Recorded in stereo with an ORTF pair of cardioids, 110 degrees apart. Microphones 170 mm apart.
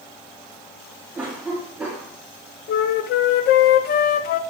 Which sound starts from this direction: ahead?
A cough, at 1.1 s.